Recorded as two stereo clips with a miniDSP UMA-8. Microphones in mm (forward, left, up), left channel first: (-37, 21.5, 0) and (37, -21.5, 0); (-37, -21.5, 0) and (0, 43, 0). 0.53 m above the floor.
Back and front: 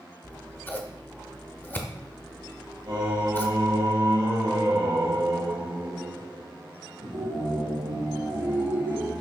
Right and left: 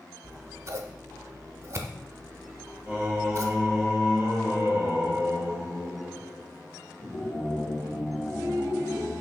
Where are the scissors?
90° left, 0.5 m.